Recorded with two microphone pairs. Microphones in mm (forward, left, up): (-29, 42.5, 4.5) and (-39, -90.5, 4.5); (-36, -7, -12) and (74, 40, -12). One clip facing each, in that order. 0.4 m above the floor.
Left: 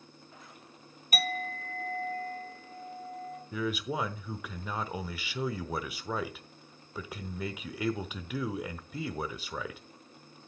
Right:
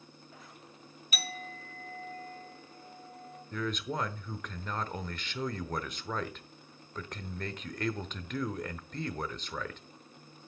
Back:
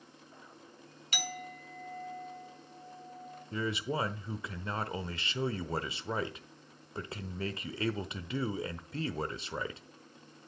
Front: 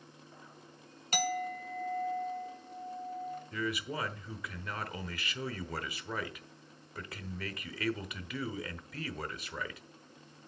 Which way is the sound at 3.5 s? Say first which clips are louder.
Left 2 dB, back 4 dB; 165° left.